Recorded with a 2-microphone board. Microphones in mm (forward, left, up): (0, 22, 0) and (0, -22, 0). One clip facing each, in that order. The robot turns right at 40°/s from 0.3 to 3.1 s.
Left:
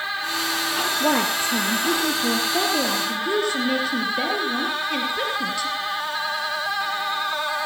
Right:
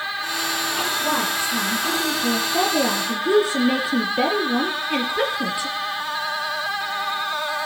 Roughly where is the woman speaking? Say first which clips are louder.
Left 4 dB; behind left.